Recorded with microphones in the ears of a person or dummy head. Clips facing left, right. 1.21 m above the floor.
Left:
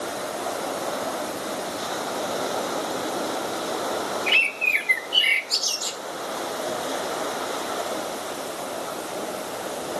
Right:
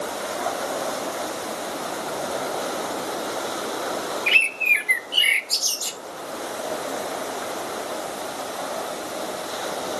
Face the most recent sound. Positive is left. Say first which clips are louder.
# left 1 dB
turn(degrees=-55)  # may be behind; listen again after turning